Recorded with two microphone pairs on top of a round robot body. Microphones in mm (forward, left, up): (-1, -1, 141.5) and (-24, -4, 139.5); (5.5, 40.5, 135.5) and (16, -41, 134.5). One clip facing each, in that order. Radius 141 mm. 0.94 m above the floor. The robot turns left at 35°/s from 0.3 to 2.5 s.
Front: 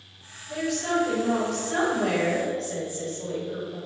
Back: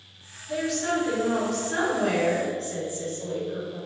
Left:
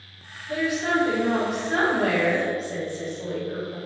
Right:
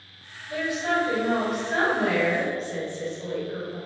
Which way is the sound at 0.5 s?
130° left.